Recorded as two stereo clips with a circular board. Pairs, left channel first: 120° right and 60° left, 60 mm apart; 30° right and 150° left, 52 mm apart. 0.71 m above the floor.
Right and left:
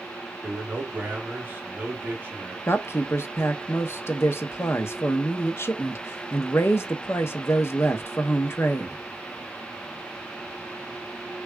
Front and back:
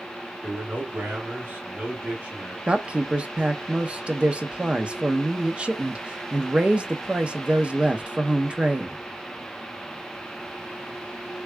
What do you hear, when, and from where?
0.4 s a man speaking: 110° left, 1.5 m
2.7 s a woman speaking: 145° right, 0.7 m